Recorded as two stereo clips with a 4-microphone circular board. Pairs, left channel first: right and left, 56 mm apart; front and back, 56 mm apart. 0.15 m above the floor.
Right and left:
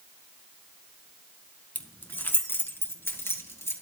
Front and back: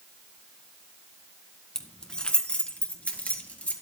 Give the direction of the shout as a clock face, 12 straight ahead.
No shout in this recording.